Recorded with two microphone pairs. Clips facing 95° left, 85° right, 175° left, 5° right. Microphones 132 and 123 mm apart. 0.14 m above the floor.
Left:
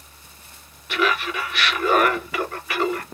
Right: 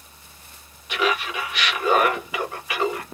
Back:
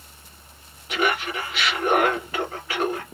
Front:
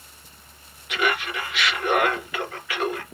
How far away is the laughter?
About 2 m.